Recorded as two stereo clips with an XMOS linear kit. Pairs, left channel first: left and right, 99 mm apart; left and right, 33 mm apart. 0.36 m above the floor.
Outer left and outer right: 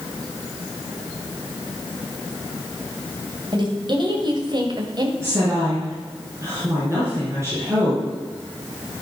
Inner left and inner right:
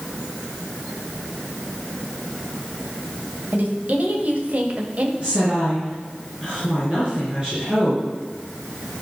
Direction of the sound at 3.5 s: 50° right (ahead or behind).